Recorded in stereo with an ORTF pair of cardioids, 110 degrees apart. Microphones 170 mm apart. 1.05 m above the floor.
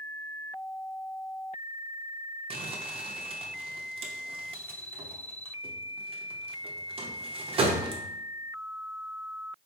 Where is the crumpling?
35° right, 0.6 m.